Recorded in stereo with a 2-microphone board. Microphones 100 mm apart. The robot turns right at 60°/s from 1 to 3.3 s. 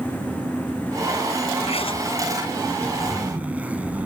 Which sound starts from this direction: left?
A zipper, at 1.6 s.